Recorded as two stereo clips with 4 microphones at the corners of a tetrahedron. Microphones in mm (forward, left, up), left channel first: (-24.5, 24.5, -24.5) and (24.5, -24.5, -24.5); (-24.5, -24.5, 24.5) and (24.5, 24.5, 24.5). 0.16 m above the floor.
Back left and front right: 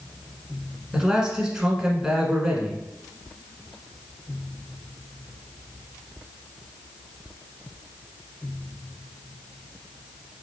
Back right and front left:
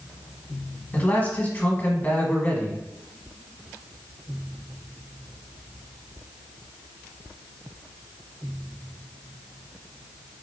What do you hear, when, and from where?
0.9 s a man speaking: 110° right, 1.2 m